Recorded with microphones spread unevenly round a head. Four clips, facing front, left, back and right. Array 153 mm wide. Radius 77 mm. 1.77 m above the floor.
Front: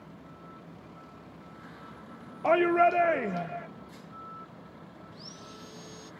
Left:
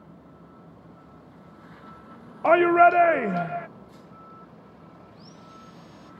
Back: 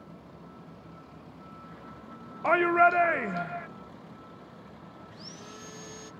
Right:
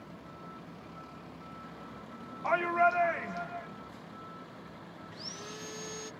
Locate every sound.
2.4 s a shout: 75° left
5.1 s sawing: 100° right